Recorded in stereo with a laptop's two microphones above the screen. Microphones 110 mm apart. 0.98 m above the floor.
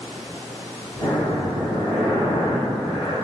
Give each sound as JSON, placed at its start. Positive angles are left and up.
{"t": 1.0, "sound": "breathing", "side_deg": 40, "distance_m": 1.0}